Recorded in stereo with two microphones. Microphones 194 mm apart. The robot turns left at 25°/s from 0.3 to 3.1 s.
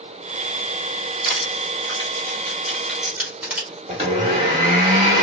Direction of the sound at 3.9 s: 35° right (ahead or behind).